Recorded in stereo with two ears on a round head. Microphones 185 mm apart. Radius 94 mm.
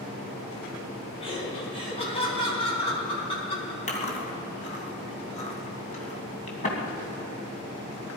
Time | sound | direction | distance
1.2 | laughter | 25° left (ahead or behind) | 5 m
3.9 | chewing | 35° left (ahead or behind) | 2.5 m